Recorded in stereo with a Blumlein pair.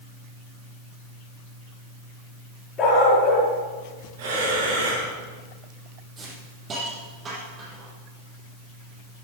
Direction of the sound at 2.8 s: 25° left.